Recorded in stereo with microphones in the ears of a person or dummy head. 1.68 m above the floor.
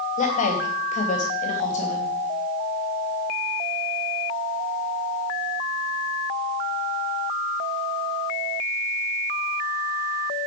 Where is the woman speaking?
35° left (ahead or behind), 2.5 m.